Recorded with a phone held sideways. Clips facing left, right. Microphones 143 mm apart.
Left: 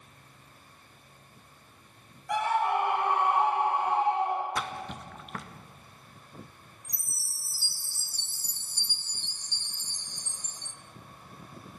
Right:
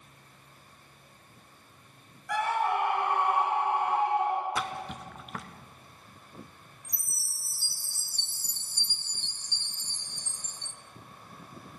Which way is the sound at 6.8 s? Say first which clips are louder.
Even; 60° right (ahead or behind).